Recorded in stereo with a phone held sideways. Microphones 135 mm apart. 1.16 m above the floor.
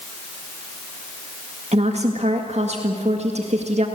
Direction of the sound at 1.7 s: 50° right (ahead or behind).